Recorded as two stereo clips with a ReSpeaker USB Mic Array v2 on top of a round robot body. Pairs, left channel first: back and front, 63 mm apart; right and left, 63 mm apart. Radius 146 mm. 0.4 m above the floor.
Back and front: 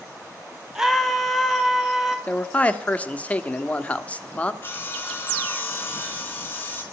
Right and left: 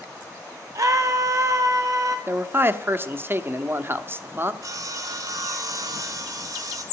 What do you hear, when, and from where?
0.8 s a scream: 80° left, 1.6 m
2.3 s a man speaking: 120° left, 1.1 m
4.6 s sawing: 120° left, 3 m